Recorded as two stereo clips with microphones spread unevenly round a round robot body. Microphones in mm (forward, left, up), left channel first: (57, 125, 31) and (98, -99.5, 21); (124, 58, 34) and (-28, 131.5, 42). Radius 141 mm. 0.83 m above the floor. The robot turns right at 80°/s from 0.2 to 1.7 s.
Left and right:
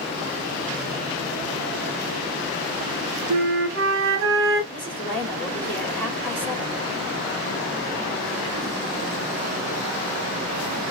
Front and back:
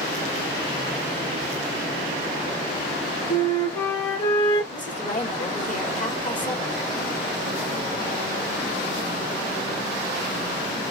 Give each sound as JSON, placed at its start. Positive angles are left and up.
{"t": 3.3, "sound": "a flute", "azimuth_deg": -95, "distance_m": 0.9}
{"t": 4.7, "sound": "a woman speaking", "azimuth_deg": 15, "distance_m": 2.5}